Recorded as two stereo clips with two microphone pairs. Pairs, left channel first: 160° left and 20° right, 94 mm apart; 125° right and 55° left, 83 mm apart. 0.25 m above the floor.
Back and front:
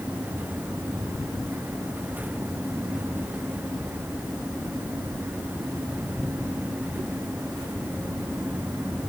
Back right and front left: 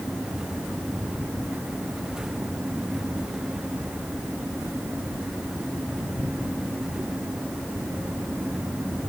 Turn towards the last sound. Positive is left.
No sound to turn to.